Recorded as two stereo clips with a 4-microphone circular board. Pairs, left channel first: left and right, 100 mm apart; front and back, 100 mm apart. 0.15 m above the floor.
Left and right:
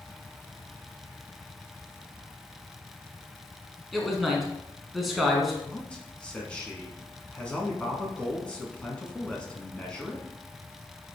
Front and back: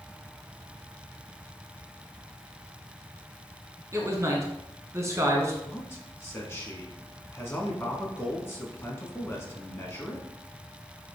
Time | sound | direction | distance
3.9 | a man speaking | straight behind | 1.2 m
5.6 | a man speaking | 25° left | 1.1 m